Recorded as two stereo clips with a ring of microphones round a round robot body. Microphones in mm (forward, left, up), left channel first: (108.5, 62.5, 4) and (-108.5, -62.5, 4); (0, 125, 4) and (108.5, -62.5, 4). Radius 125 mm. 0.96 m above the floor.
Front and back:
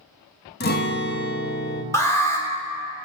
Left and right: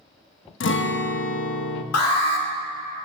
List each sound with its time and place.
0.6 s a guitar: 85° left, 0.9 m
1.9 s an alarm: 110° left, 1.9 m